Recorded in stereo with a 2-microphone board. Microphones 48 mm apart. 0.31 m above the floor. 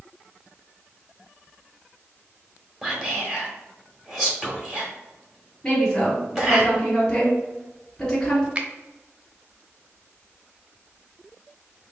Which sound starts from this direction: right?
A finger snap, at 8.6 s.